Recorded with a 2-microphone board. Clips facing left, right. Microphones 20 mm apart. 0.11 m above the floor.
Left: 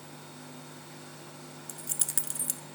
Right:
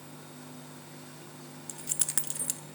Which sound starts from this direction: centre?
Keys jangling, at 1.7 s.